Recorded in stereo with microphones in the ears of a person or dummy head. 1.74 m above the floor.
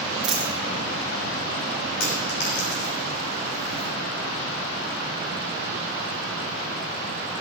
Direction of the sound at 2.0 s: 60° left (ahead or behind).